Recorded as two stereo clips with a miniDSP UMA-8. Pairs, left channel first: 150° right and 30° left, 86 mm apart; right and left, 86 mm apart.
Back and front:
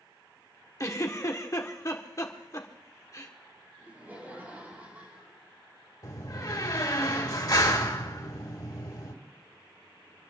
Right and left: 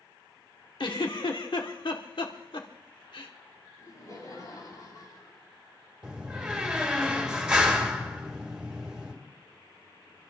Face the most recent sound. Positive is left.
turn(degrees=175)